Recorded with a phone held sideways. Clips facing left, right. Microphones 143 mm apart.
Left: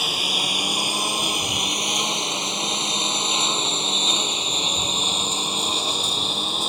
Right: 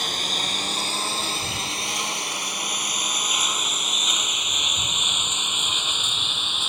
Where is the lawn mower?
5° left (ahead or behind); by 6.7 s 35° left (ahead or behind).